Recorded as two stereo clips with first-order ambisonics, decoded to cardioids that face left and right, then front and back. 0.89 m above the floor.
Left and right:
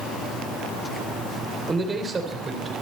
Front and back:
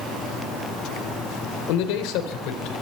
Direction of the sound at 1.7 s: 15° right.